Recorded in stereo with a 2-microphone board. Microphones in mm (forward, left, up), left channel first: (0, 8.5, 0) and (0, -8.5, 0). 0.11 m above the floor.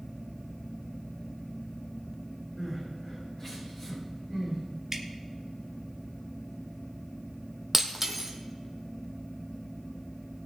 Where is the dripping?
20° right (ahead or behind), 1.7 m.